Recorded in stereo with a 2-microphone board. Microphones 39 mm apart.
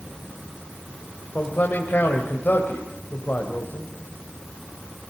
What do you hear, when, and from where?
1.4 s a man speaking: 50° left (ahead or behind), 3 m